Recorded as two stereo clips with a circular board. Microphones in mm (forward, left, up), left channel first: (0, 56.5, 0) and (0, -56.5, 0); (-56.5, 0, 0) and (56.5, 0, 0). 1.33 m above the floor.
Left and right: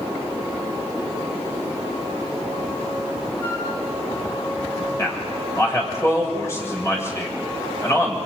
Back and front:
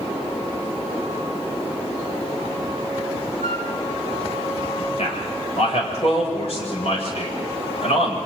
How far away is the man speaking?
About 7 m.